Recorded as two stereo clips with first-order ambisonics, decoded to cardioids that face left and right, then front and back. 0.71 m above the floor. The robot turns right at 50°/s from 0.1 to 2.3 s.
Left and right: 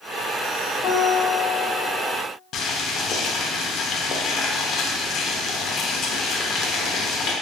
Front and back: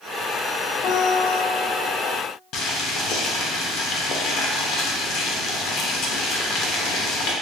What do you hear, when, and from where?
0.8 s a guitar: 15° left, 0.8 m; by 2.0 s 70° left, 0.8 m
2.5 s boiling: 40° left, 0.5 m